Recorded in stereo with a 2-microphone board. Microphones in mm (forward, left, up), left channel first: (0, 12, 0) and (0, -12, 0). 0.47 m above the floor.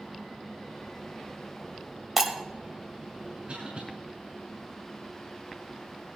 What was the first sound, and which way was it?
Breaking glass, 10° right (ahead or behind).